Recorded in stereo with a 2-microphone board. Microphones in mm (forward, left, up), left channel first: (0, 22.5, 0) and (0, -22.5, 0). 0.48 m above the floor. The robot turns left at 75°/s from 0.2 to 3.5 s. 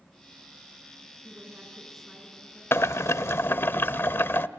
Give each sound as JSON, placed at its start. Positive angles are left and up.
{"t": 1.2, "sound": "a woman speaking", "azimuth_deg": -125, "distance_m": 6.5}
{"t": 2.7, "sound": "boiling", "azimuth_deg": 110, "distance_m": 0.7}